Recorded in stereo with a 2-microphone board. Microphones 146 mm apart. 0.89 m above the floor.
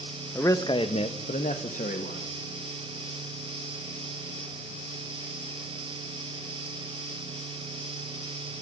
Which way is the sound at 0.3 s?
15° left (ahead or behind).